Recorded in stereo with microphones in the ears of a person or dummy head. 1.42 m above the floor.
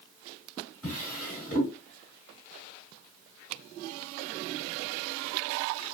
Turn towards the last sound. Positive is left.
turn(degrees=15)  # may be behind; listen again after turning